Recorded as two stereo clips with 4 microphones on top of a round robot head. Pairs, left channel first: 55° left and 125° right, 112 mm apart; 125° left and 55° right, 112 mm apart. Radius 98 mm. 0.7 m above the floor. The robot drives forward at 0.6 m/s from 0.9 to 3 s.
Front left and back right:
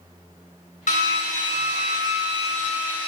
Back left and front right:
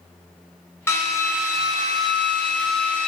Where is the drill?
55° left, 2.5 m; by 3.1 s 90° left, 2 m.